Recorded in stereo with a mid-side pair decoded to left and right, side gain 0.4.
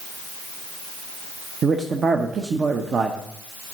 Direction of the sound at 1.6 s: 50° right.